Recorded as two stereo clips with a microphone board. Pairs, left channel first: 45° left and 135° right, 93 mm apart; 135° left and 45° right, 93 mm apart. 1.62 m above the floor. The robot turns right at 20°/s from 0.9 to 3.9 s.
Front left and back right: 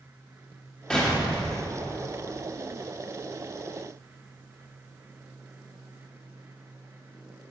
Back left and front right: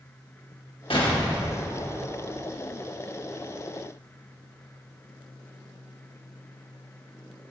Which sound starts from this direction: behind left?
An explosion, at 0.9 s.